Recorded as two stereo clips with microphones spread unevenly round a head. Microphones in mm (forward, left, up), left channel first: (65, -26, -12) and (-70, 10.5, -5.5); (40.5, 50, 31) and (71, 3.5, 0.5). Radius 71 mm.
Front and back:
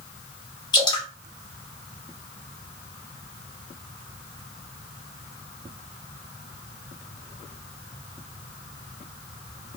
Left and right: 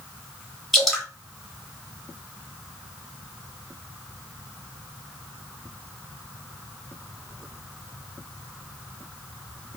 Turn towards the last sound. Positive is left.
turn(degrees=50)